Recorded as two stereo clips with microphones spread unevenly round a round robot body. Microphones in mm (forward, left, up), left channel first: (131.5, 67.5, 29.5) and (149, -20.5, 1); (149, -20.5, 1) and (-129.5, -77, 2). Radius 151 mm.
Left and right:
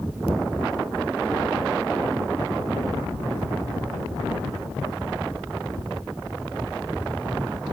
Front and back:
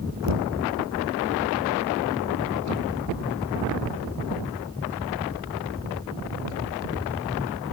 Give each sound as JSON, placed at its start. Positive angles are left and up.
{"t": 0.2, "sound": "knocking", "azimuth_deg": -155}